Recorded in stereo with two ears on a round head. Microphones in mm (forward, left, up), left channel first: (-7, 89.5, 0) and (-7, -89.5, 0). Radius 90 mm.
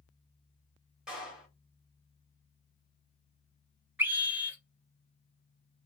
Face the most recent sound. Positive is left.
turn(degrees=-10)  # may be behind; listen again after turning